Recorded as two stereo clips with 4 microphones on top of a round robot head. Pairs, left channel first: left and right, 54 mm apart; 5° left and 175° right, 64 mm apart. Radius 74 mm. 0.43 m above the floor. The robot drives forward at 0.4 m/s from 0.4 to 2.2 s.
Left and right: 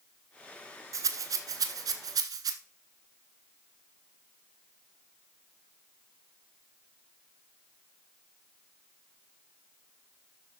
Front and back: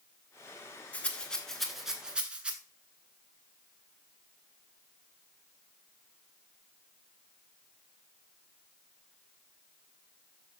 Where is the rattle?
70° right, 1.0 m; by 2.5 s 100° right, 1.0 m.